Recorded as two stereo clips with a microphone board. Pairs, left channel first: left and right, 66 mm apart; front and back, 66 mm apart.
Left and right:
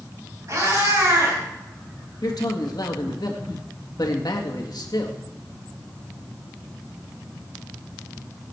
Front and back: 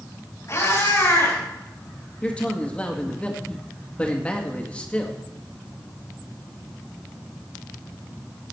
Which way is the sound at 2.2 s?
70° left.